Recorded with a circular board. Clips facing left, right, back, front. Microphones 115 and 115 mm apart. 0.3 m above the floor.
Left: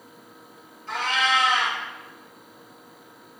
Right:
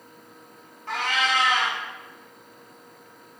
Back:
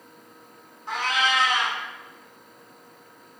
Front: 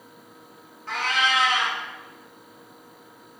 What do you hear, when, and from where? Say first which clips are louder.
0.9 s a cat meowing: left 1 dB, even; 110° right, 0.8 m